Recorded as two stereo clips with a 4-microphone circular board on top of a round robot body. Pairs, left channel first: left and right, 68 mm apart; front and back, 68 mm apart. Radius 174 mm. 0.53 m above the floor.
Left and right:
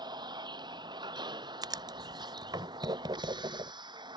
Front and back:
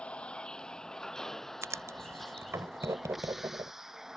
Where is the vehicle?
75° right; by 4.2 s 95° right.